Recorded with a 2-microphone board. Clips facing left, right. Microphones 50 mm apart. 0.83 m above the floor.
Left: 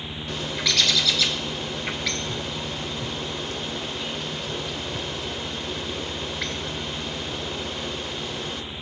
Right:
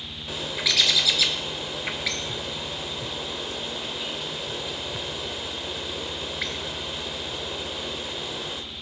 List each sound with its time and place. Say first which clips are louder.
0.3 s a bird: left 1 dB; 5° right (ahead or behind), 1.2 m